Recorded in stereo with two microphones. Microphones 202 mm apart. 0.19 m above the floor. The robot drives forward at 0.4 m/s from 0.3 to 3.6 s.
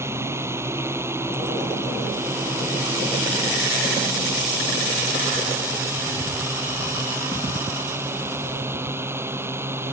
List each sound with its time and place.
0.0 s a drone: 10° right (ahead or behind)